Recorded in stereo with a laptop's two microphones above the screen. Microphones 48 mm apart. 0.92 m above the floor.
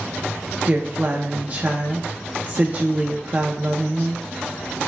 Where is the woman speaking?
30° right (ahead or behind), 0.8 m.